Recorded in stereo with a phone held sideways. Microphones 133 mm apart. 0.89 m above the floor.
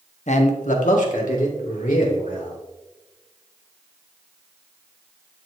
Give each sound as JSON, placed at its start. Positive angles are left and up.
{"t": 0.3, "sound": "a man speaking", "side_deg": 60, "distance_m": 1.0}